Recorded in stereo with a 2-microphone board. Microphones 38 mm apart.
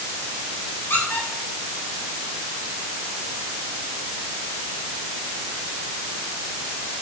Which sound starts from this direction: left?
A squeak, at 0.9 s.